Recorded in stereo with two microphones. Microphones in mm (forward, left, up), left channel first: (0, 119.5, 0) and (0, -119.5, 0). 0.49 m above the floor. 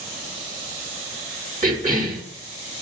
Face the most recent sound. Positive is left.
turn(degrees=-35)  # may be behind; listen again after turning